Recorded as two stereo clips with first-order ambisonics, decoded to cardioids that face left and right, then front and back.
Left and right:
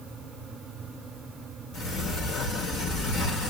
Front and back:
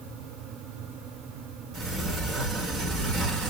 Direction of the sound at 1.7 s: 135° left.